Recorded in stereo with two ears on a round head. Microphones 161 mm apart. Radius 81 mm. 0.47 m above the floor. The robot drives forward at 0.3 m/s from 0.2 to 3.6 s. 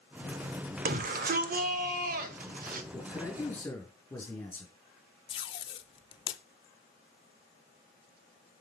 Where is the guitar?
No guitar in this recording.